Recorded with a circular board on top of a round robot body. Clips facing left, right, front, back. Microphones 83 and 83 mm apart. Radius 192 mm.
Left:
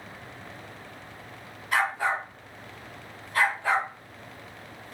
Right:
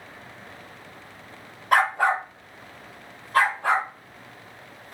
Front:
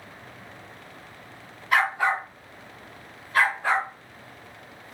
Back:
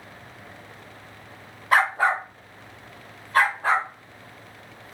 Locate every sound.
1.7 s a dog barking: 125° right, 0.8 m; by 5.0 s 130° right, 3 m